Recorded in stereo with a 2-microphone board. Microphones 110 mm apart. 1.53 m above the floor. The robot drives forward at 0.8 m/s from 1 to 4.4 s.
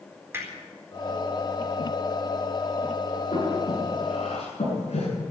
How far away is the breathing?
About 8.5 m.